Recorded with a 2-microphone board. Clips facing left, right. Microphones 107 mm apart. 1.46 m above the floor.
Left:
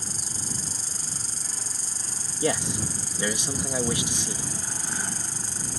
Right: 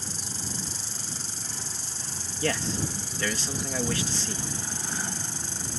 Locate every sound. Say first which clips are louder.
0.0 s an insect: right 1 dB; 40° left (ahead or behind)
2.4 s a man speaking: left 2 dB; 15° left (ahead or behind)